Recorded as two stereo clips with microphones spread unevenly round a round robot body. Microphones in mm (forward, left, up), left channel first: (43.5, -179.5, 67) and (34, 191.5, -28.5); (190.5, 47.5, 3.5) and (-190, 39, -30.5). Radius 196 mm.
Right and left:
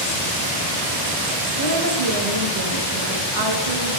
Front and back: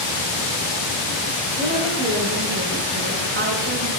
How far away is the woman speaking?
About 5 m.